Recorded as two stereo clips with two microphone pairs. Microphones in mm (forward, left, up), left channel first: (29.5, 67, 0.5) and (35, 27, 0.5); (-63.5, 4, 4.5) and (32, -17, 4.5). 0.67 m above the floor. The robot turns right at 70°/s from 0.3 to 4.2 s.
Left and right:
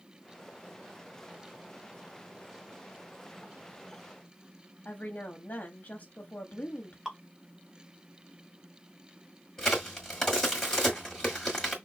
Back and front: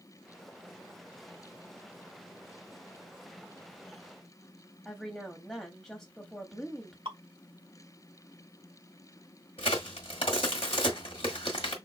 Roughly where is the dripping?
Ahead.